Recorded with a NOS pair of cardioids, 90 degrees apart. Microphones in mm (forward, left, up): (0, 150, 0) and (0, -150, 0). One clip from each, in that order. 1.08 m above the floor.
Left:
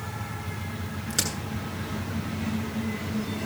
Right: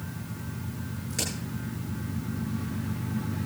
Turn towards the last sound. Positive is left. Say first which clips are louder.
# left 4 dB
turn(degrees=50)